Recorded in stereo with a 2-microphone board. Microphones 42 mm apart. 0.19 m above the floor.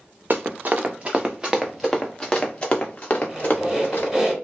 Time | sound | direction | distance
0.3 | running footsteps | 50° right (ahead or behind) | 0.9 m
3.3 | a squeak | 15° right (ahead or behind) | 1.2 m